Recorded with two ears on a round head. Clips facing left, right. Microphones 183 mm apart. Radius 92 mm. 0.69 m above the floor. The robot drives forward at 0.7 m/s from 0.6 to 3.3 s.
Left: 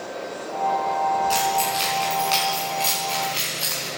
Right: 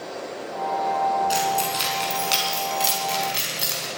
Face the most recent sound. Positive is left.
turn(degrees=-20)  # may be behind; listen again after turning